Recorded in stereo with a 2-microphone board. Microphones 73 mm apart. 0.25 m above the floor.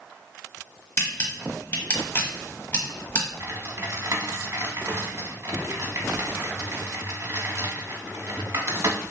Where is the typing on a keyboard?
40° right (ahead or behind), 0.8 m.